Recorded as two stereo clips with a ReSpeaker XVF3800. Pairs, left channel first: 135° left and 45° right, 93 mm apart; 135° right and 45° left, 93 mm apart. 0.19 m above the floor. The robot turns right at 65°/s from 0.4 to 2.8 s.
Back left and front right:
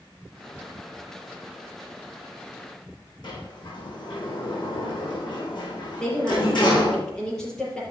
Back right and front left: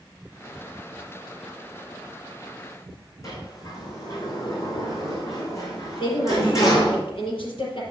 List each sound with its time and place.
3.2 s a sliding door: 170° left, 4 m
6.0 s a woman speaking: 145° right, 5 m